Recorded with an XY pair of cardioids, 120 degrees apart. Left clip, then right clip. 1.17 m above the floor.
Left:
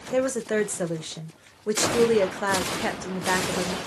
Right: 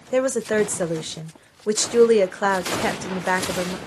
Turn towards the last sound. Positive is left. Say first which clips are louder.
# right 4 dB
turn(degrees=-25)